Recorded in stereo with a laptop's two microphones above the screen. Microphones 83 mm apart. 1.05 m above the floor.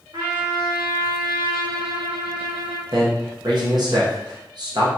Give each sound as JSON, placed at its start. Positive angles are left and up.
{"t": 0.1, "sound": "a trumpet", "side_deg": -85, "distance_m": 1.4}
{"t": 2.9, "sound": "a man speaking", "side_deg": -55, "distance_m": 1.0}